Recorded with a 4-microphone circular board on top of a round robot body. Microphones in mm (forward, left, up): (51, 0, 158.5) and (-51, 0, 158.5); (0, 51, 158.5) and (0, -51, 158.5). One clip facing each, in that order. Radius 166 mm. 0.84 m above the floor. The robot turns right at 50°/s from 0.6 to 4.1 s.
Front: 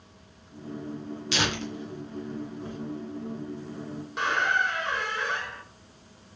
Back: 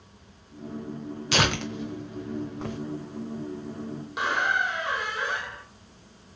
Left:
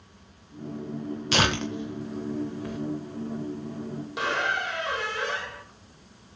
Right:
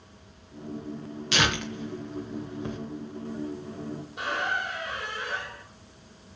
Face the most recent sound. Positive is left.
turn(degrees=100)